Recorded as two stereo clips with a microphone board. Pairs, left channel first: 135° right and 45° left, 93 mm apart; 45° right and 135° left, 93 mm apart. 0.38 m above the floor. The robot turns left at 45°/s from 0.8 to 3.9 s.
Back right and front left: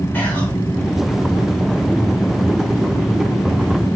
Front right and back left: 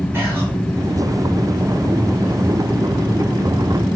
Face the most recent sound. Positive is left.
turn(degrees=35)